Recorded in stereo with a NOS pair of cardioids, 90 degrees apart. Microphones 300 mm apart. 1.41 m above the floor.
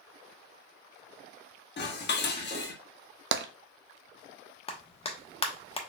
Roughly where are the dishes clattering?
Ahead left.